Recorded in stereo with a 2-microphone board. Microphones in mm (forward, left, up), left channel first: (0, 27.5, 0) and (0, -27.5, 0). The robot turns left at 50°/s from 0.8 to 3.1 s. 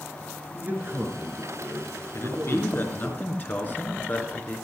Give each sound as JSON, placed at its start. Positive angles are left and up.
{"t": 0.5, "sound": "a man speaking", "azimuth_deg": -40, "distance_m": 3.5}
{"t": 2.1, "sound": "a man speaking", "azimuth_deg": 85, "distance_m": 3.0}